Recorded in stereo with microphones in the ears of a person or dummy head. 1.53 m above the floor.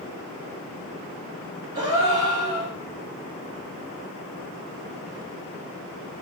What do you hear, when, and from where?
1.8 s a gasp: 20° right (ahead or behind), 0.7 m